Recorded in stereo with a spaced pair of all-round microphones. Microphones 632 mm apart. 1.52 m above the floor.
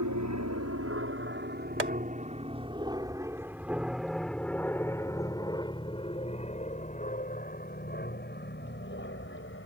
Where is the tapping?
75° right (ahead or behind).